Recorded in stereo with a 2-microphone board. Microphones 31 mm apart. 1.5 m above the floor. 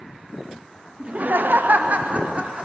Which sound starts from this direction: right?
Laughter, at 1.0 s.